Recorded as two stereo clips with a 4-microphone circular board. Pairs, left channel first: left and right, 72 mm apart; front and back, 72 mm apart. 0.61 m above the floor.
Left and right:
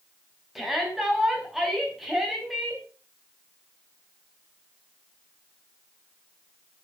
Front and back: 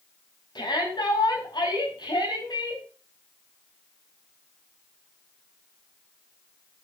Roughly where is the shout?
Ahead.